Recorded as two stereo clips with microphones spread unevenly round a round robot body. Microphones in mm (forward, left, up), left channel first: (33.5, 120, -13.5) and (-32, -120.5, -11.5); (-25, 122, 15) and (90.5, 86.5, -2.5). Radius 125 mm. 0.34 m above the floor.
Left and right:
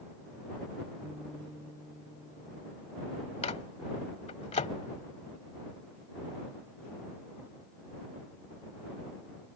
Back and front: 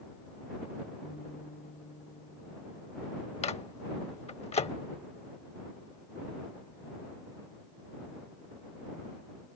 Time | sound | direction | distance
1.0 | a guitar | 165° left | ?
3.4 | a microwave | 135° left | ?